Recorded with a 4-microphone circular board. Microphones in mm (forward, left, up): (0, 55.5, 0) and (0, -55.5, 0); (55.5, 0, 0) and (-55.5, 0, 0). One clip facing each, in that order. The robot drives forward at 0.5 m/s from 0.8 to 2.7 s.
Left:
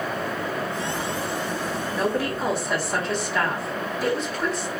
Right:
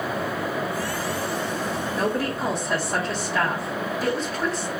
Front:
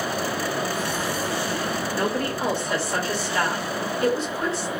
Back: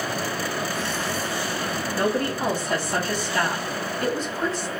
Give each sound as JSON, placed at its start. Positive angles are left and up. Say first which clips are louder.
{"t": 2.0, "sound": "a woman speaking", "louder": "left 1 dB, back 3 dB", "azimuth_deg": 175, "distance_m": 1.0}